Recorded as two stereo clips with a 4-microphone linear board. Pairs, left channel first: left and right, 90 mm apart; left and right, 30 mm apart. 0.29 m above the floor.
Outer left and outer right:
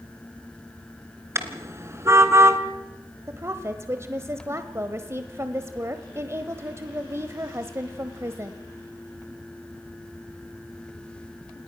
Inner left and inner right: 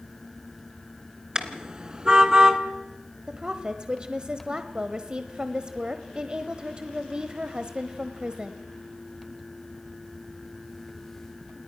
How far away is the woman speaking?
About 1.1 m.